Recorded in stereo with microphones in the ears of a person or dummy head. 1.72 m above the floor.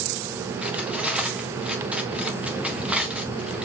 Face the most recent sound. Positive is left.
turn(degrees=-5)  # may be behind; listen again after turning